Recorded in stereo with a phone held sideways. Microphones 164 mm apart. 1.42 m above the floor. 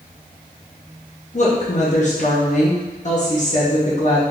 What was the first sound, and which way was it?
A woman speaking, 50° left (ahead or behind).